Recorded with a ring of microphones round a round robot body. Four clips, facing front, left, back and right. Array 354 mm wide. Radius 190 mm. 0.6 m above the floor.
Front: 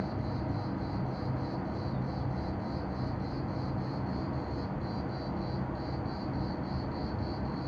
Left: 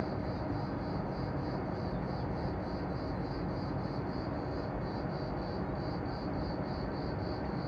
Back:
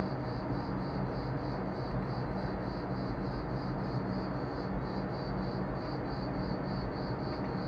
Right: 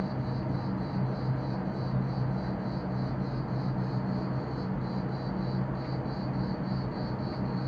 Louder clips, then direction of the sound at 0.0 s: Right 2 dB, even; 45° right.